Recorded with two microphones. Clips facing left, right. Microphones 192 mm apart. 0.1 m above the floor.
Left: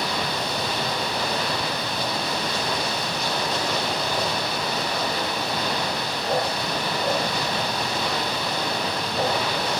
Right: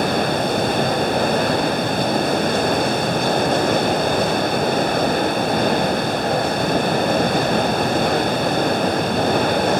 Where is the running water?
50° right (ahead or behind), 1.4 m.